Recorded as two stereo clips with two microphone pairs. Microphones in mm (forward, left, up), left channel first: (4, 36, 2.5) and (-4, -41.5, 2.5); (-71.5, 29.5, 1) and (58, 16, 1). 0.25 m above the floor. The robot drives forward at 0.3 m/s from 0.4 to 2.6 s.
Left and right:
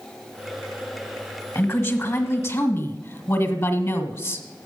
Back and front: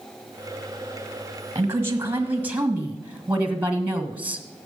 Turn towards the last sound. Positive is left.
turn(degrees=65)